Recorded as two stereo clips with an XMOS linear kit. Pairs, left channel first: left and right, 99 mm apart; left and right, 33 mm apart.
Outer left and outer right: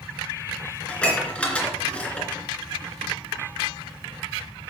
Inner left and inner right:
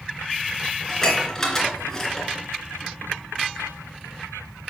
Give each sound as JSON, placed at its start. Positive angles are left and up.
{"t": 0.9, "sound": "dishes clattering", "side_deg": 15, "distance_m": 2.0}